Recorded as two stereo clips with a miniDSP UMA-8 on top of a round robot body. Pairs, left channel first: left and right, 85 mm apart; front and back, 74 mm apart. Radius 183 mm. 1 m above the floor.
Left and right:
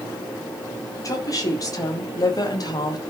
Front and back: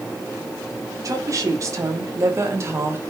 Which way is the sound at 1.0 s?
140° left.